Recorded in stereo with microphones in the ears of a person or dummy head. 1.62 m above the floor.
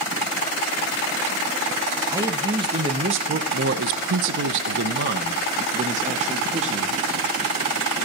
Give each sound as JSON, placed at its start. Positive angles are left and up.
{"t": 2.1, "sound": "a man speaking", "side_deg": -15, "distance_m": 1.8}